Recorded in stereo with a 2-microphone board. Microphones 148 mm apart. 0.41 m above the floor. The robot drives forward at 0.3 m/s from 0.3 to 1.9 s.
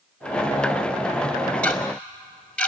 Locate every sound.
1.6 s ticking: 10° left (ahead or behind), 2.5 m